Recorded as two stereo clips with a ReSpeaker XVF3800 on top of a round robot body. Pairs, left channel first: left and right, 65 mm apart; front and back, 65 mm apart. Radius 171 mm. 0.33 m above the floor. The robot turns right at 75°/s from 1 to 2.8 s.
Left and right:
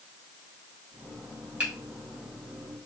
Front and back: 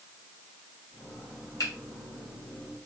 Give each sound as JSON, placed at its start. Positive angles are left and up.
{"t": 1.6, "sound": "a finger snap", "azimuth_deg": -20, "distance_m": 3.0}